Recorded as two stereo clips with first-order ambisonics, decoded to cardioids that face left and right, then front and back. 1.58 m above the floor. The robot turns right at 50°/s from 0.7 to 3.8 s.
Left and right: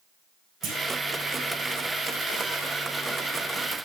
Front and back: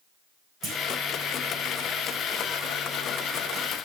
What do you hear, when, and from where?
0.6 s a clunk: 135° right, 3.5 m; by 0.8 s 125° right, 3.5 m